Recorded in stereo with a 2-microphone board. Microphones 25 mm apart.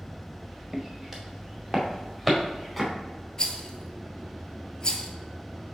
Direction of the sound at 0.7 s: 25° right (ahead or behind).